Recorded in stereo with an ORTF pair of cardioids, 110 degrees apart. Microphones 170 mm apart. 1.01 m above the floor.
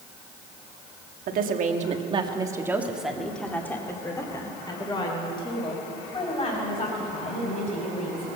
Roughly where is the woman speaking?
Ahead right.